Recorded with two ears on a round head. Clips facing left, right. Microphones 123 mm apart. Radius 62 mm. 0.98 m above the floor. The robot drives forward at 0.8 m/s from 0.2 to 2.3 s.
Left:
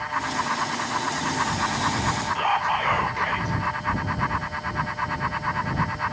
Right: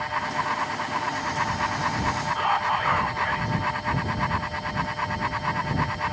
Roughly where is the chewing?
I don't hear chewing.